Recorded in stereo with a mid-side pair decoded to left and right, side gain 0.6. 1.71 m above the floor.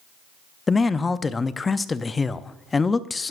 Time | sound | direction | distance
0.7 | a man speaking | 20° left | 0.5 m